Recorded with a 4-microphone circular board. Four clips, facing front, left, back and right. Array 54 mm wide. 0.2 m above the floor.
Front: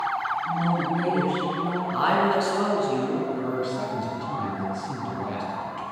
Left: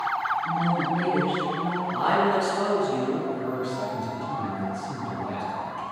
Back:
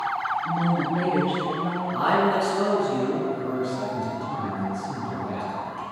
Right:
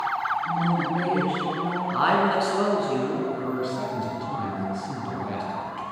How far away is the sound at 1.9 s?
About 1.9 m.